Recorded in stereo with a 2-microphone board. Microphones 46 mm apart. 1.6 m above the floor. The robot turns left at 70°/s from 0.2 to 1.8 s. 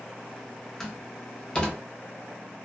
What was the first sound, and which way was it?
A door slam, 5° left (ahead or behind).